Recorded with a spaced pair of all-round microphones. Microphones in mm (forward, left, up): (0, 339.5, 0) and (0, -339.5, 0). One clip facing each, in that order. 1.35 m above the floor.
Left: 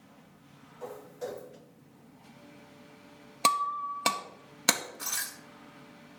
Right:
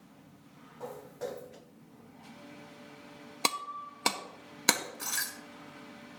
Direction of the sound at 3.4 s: 15° left (ahead or behind).